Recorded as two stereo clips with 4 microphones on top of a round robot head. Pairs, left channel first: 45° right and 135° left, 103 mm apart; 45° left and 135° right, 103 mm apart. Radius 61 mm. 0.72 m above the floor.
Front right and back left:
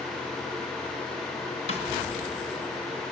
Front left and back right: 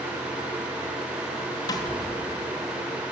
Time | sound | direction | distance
1.7 | a snare drum | 15° right | 2.5 m